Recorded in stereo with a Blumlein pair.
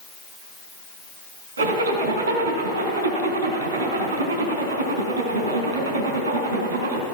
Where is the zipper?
70° right, 4.5 m.